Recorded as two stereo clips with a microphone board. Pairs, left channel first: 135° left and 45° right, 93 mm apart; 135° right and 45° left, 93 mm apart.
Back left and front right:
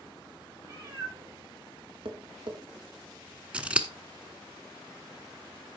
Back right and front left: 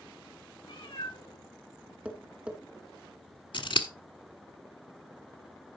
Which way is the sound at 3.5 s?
120° right.